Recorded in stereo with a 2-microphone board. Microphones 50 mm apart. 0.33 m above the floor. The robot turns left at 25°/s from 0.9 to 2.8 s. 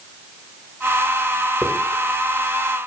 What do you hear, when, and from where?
1.6 s a hiss: 20° left (ahead or behind), 1.4 m